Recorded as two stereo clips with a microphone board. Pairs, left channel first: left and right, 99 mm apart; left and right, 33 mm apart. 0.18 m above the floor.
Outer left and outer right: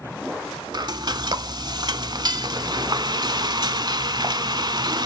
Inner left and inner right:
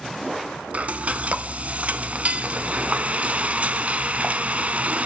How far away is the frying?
About 0.7 m.